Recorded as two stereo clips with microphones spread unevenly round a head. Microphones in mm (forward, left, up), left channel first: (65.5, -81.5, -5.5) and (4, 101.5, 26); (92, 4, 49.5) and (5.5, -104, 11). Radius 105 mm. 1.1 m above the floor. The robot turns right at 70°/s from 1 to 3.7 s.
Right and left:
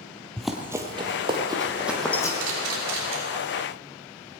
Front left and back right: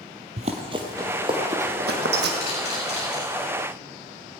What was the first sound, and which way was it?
Running footsteps, 170° right.